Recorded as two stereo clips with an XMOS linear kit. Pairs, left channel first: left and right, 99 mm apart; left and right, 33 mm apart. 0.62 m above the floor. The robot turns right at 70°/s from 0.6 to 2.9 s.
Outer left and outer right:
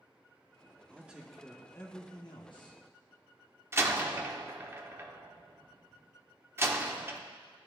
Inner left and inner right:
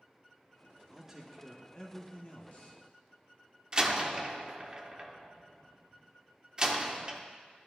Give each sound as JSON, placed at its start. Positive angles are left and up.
{"t": 0.9, "sound": "a man speaking", "azimuth_deg": -25, "distance_m": 1.0}
{"t": 3.7, "sound": "a door slam", "side_deg": -25, "distance_m": 0.7}